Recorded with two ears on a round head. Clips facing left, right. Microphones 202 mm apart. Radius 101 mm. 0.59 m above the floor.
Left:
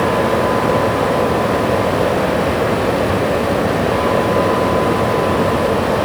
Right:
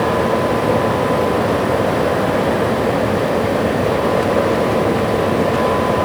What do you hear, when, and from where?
Only background noise.